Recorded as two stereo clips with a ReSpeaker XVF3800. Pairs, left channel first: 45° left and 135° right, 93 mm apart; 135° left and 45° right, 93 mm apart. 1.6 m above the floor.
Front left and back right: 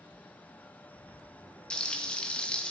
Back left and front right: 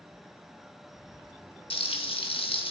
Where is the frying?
125° left, 2 m.